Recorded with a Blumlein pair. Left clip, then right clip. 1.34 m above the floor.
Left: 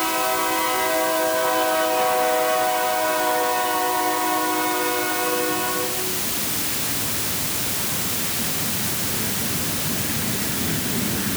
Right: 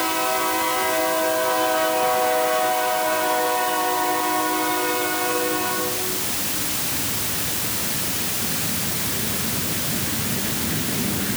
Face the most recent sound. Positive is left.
No sound to turn to.